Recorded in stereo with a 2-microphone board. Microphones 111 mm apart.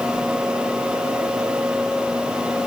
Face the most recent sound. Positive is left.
No sound to turn to.